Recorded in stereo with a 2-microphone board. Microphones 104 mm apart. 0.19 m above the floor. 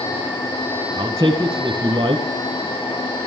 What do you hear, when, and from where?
1.0 s a man speaking: 35° right (ahead or behind), 1.7 m